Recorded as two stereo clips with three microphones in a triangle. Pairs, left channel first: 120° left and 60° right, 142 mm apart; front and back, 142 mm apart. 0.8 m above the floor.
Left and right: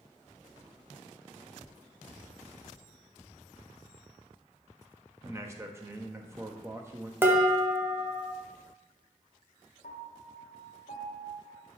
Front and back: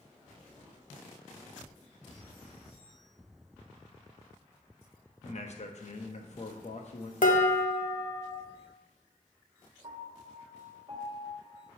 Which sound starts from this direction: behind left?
A piano, at 9.8 s.